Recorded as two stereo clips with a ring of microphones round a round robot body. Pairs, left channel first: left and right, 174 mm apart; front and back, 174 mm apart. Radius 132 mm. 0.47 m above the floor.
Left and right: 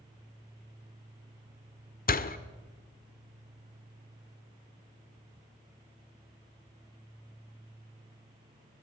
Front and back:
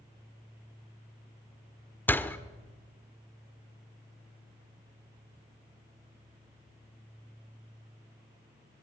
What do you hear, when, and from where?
2.1 s a door slam: 75° left, 1.3 m